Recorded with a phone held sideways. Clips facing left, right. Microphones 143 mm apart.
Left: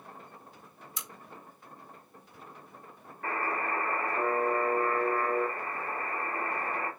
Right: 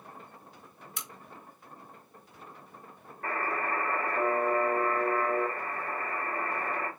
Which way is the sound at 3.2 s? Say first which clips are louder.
Even; 35° right (ahead or behind).